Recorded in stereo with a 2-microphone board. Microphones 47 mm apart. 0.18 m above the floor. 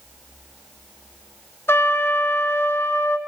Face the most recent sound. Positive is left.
turn(degrees=65)  # may be behind; listen again after turning